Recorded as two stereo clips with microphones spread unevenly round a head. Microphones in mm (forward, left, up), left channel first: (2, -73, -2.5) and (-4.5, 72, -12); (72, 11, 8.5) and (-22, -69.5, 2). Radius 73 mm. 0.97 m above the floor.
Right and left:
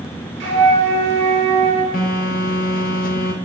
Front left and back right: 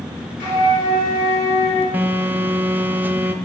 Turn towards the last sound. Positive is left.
turn(degrees=-65)